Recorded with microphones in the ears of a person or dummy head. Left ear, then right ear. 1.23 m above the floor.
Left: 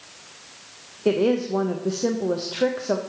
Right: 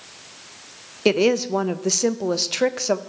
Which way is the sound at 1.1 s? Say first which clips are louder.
Right 3 dB; 70° right (ahead or behind).